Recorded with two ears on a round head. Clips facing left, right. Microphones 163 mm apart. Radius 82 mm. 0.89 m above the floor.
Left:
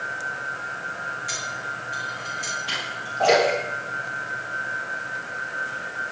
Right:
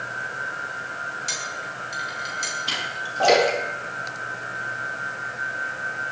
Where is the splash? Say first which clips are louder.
Right 1 dB; 50° right (ahead or behind), 8.5 m.